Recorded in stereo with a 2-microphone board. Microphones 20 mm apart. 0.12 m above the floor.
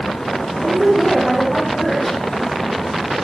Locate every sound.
0.6 s a woman speaking: 15° left (ahead or behind), 5 m